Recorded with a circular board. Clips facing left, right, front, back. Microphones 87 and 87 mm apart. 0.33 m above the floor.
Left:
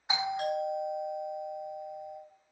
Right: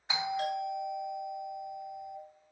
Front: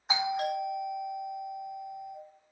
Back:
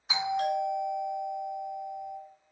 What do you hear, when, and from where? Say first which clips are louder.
0.1 s a doorbell: left 1 dB, back 1 dB; 25° left, 2.5 m